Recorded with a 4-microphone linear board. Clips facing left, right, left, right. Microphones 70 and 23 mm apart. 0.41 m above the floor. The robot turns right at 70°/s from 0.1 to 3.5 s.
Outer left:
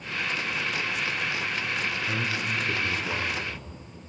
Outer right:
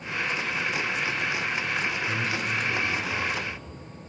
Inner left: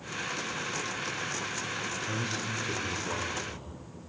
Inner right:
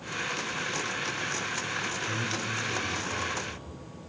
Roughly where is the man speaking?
Ahead.